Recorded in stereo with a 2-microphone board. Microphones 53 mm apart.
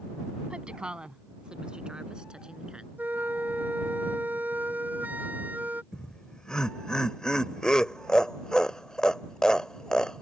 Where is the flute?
35° right (ahead or behind).